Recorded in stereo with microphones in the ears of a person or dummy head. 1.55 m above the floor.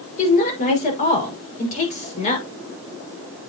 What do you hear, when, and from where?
0.2 s a woman speaking: 35° left (ahead or behind), 6 m